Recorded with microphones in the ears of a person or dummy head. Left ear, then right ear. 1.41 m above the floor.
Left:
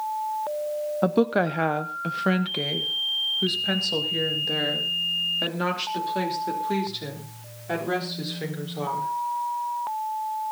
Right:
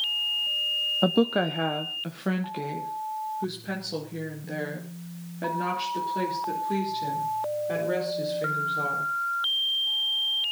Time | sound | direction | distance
1.0 | a woman speaking | 5° right (ahead or behind) | 0.5 m